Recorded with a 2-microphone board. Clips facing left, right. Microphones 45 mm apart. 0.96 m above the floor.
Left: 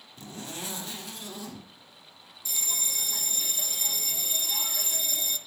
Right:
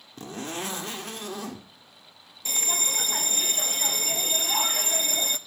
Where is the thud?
I don't hear a thud.